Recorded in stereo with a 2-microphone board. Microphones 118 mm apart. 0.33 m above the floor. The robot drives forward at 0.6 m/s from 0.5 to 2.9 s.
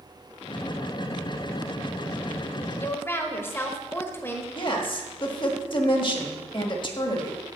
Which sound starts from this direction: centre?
A woman speaking, at 2.8 s.